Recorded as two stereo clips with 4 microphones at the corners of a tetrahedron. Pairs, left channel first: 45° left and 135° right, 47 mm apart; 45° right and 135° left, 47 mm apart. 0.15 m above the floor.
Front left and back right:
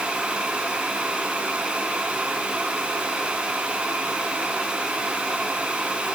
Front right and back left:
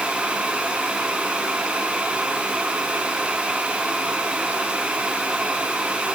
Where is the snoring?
I don't hear snoring.